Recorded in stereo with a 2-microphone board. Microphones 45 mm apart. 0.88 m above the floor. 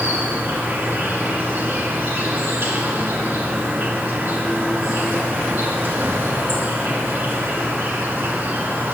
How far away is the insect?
About 1.8 m.